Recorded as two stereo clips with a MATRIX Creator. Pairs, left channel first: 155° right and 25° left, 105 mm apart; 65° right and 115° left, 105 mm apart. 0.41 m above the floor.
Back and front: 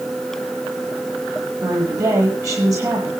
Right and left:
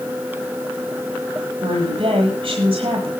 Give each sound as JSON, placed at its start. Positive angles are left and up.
{"t": 1.6, "sound": "a woman speaking", "azimuth_deg": 80, "distance_m": 9.5}